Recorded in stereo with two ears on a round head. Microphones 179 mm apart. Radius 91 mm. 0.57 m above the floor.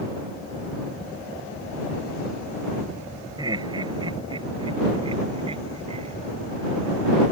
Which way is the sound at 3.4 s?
20° right (ahead or behind).